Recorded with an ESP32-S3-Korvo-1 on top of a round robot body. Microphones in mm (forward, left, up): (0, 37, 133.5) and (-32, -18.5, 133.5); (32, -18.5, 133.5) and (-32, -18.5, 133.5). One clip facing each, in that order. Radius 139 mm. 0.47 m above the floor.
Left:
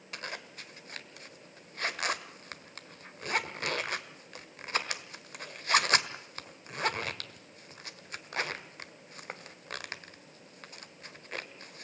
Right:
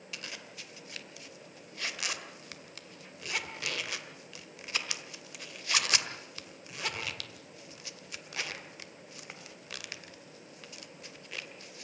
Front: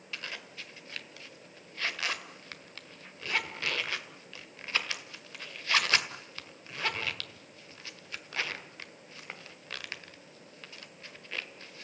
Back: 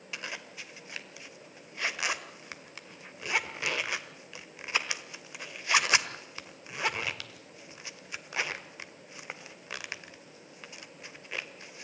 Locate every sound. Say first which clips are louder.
0.1 s a zipper: left 4 dB, back 1 dB; 105° left, 1.8 m